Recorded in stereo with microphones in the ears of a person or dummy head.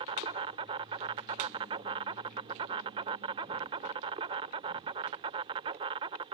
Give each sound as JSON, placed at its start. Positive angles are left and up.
{"t": 0.0, "sound": "an insect", "side_deg": -20}